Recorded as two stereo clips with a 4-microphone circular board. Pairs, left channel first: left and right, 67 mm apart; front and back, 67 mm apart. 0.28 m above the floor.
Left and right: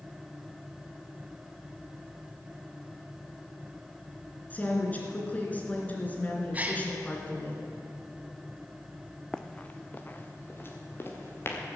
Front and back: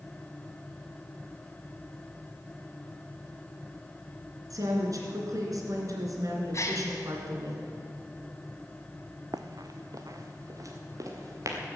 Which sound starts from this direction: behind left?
A woman speaking, at 4.5 s.